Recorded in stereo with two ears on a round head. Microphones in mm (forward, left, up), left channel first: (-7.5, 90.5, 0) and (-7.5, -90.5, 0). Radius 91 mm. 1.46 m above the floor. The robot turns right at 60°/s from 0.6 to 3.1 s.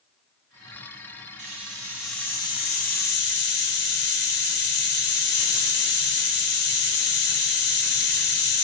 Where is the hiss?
40° right, 1.1 m; by 8.7 s 60° left, 1.1 m.